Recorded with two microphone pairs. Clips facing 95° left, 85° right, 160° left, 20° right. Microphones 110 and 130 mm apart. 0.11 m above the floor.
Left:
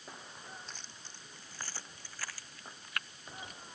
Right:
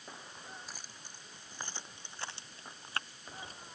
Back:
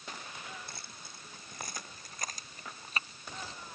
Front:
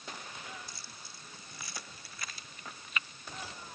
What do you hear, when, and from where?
0.7 s keys jangling: 165° right; by 3.6 s 140° right